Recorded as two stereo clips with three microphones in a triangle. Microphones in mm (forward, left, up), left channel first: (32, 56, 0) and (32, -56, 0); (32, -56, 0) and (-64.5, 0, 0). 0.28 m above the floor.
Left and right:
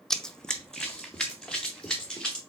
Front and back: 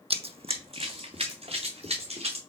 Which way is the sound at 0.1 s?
175° left.